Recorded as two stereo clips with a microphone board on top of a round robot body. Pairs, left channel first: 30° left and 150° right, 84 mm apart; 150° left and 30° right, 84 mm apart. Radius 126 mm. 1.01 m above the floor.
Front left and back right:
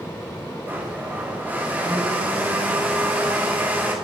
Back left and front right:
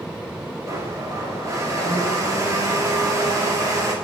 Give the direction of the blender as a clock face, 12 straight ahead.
3 o'clock.